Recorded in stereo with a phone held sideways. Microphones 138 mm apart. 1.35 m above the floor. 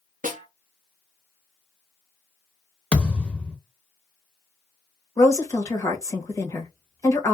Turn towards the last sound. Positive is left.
turn(degrees=25)  # may be behind; listen again after turning